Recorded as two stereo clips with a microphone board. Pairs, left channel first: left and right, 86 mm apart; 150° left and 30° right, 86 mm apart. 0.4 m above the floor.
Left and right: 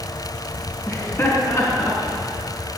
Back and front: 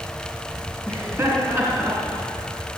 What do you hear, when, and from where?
0.9 s laughter: 30° left, 4 m; by 2.2 s 35° left, 5 m